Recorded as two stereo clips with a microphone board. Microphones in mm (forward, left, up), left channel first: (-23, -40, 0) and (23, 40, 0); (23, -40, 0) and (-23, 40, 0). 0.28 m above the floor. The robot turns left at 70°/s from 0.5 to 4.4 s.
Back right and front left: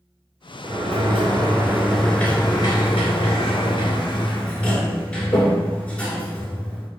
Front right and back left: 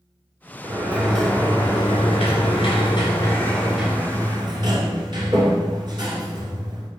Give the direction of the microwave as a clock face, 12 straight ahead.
No microwave in this recording.